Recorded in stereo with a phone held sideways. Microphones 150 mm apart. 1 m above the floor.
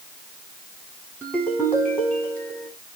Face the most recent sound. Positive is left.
turn(degrees=10)  # may be behind; listen again after turning